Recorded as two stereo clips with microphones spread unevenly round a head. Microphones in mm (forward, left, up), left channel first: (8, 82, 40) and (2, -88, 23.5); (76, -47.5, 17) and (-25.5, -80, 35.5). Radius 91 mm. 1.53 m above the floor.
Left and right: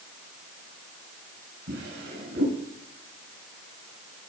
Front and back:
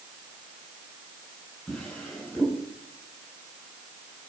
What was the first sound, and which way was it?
A drawer, 75° right.